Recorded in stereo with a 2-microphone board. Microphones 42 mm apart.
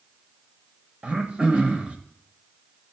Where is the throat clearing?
25° right (ahead or behind), 0.7 m.